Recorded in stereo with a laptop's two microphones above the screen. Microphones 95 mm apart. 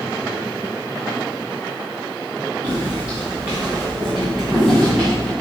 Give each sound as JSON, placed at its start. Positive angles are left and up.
{"t": 2.6, "sound": "footsteps", "side_deg": -25, "distance_m": 4.0}